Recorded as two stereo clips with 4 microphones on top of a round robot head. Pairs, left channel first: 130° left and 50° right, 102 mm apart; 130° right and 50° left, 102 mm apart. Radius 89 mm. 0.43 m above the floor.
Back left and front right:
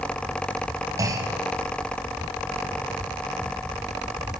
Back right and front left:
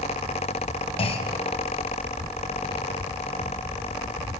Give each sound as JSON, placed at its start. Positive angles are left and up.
{"t": 1.0, "sound": "a clunk", "azimuth_deg": -105, "distance_m": 2.0}